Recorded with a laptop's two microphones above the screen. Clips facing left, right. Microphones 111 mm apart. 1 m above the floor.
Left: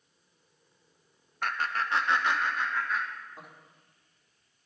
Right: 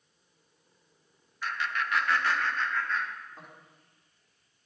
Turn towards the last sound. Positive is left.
turn(degrees=5)  # may be behind; listen again after turning